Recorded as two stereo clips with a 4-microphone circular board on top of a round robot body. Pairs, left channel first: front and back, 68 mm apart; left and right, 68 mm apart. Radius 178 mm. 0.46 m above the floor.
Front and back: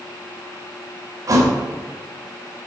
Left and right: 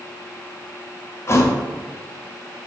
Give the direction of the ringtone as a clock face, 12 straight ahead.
I don't hear a ringtone.